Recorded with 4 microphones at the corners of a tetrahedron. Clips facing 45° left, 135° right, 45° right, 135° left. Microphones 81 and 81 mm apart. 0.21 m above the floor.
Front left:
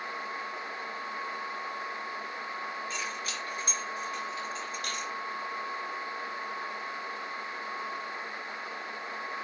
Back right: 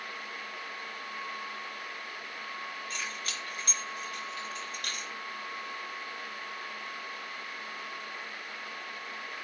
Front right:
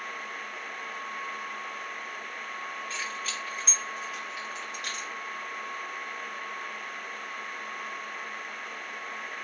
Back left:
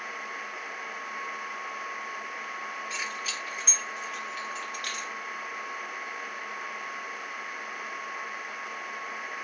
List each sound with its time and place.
2.9 s keys jangling: 155° right, 1.9 m; by 5.1 s 105° right, 2 m